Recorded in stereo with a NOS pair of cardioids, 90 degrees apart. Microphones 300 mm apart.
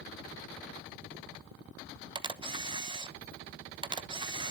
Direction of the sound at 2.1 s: 15° right.